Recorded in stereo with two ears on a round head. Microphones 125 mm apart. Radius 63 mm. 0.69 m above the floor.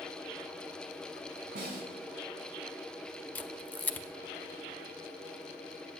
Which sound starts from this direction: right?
A snare drum, at 1.6 s.